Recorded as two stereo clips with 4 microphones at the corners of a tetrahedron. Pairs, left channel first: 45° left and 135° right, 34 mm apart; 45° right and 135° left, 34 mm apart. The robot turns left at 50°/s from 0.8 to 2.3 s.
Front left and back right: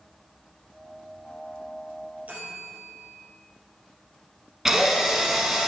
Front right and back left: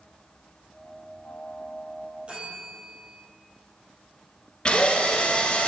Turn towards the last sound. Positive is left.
turn(degrees=-75)